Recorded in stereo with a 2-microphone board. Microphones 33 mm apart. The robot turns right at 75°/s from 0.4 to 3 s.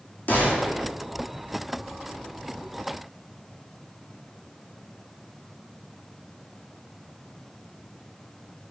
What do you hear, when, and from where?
0.3 s a gunshot: 70° left, 2.5 m; by 0.9 s 105° left, 2.5 m